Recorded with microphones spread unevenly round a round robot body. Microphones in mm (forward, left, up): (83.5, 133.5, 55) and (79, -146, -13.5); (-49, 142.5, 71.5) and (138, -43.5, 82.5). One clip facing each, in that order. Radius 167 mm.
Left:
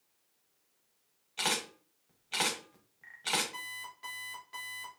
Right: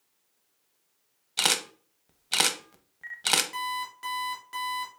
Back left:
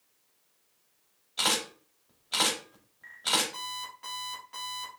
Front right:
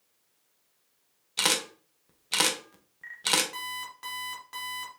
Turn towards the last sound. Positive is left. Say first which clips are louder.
# right 13 dB, front right 1 dB
turn(degrees=-85)